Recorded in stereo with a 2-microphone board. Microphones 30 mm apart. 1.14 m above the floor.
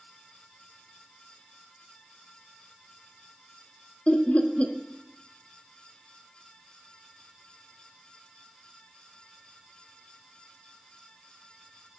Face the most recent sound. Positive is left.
turn(degrees=45)  # may be behind; listen again after turning